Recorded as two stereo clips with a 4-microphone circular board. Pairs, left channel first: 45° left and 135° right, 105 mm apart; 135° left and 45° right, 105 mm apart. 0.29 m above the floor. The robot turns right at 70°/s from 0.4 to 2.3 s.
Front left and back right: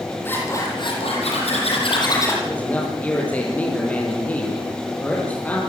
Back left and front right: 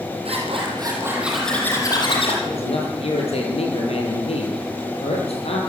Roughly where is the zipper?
Ahead right.